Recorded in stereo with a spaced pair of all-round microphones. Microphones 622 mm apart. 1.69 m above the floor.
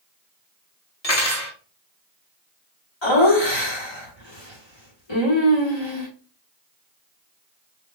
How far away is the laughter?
About 1.9 m.